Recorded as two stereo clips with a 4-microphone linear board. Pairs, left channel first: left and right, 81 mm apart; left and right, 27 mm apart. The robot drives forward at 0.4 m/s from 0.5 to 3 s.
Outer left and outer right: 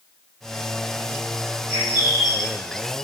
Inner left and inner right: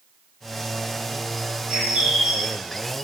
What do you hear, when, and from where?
1.7 s a bird: 30° right (ahead or behind), 1.5 m; by 2.6 s 35° right (ahead or behind), 1.2 m